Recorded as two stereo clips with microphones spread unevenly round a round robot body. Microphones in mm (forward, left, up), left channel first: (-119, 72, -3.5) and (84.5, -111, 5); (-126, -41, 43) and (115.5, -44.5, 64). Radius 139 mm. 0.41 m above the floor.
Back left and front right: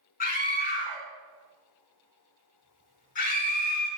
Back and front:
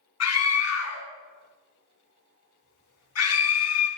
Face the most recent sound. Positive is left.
turn(degrees=-160)